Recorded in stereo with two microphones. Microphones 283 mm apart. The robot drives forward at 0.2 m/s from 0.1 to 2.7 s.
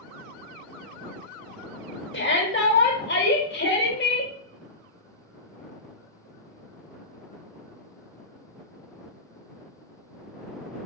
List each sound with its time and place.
2.1 s a shout: 40° left (ahead or behind), 1.0 m